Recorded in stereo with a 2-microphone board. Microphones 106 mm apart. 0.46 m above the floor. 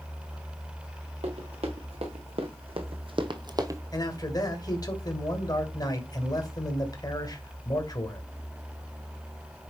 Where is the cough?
No cough in this recording.